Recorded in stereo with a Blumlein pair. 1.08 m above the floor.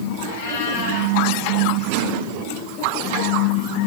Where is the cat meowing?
55° left, 5 m.